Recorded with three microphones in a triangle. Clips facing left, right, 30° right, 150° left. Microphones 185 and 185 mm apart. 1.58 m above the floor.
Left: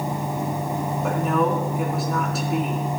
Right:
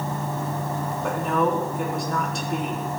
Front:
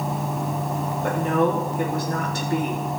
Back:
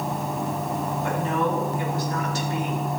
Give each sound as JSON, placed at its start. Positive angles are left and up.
{"t": 1.0, "sound": "a woman speaking", "azimuth_deg": 5, "distance_m": 3.0}